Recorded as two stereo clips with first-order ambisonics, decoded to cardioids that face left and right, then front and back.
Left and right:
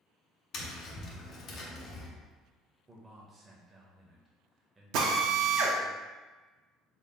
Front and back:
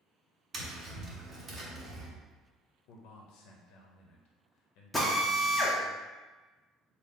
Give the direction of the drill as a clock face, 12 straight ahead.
3 o'clock.